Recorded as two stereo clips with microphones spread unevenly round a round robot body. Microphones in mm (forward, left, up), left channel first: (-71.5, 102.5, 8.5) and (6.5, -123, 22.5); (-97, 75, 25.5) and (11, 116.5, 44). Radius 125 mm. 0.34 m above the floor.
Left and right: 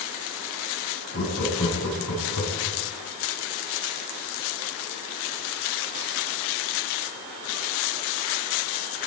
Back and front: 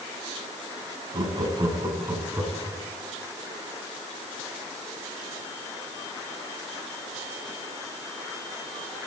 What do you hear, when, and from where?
1.1 s laughter: 70° left, 3.5 m; by 2.8 s 100° left, 4.5 m